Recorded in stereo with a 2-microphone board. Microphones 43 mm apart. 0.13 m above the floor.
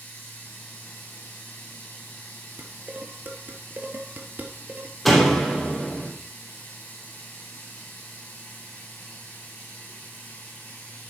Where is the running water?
55° left (ahead or behind), 4.5 m.